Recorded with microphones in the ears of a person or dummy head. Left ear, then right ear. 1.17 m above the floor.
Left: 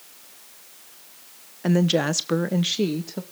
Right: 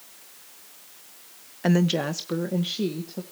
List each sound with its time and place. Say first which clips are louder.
1.6 s a woman speaking: left 3 dB; 20° right (ahead or behind), 0.7 m; by 3.2 s 60° left (ahead or behind), 1.8 m